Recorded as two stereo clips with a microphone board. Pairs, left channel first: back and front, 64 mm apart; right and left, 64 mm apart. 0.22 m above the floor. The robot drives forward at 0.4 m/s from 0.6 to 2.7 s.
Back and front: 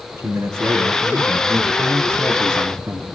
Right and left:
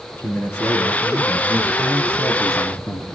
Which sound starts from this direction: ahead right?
A man speaking, at 0.2 s.